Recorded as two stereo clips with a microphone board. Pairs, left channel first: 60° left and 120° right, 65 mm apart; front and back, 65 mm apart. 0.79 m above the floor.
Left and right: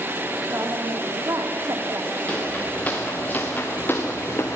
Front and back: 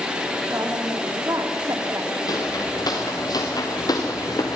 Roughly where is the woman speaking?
Behind right.